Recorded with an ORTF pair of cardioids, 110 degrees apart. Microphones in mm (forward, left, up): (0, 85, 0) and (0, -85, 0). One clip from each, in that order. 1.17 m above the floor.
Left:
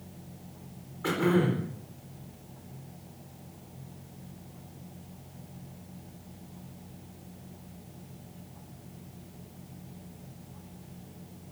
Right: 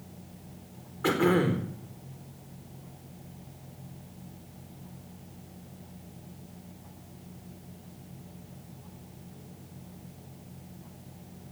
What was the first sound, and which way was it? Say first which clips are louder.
Throat clearing: right 2 dB; 30° right.